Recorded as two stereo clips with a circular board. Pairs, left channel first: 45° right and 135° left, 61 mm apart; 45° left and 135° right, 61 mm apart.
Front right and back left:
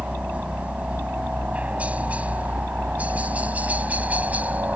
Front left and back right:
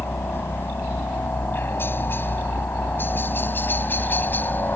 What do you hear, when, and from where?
0.0 s a helicopter: 75° left; by 4.8 s 85° left